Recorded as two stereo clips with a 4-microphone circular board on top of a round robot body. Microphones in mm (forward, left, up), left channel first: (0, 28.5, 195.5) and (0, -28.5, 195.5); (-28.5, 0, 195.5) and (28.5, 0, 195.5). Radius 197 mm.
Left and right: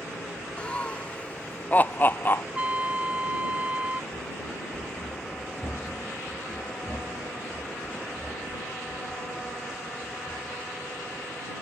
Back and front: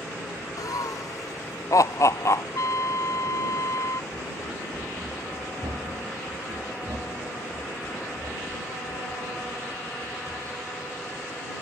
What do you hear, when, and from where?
0.6 s laughter: 160° left; by 2.5 s 140° left
2.5 s a trumpet: 155° right
4.1 s running footsteps: 65° left; by 11.2 s 25° right